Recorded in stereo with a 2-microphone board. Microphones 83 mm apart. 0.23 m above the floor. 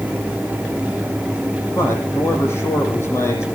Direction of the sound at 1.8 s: 35° left (ahead or behind).